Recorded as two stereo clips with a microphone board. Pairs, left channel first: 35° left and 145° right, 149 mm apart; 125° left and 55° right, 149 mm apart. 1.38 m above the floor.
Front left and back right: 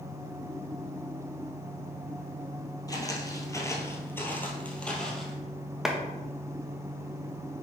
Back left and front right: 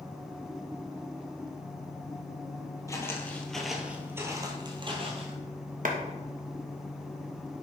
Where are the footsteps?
75° left, 1.6 m; by 5.4 s 50° right, 1.9 m.